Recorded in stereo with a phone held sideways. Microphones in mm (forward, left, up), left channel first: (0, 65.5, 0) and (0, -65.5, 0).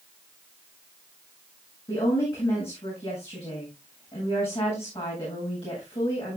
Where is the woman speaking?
50° left (ahead or behind), 7.5 m.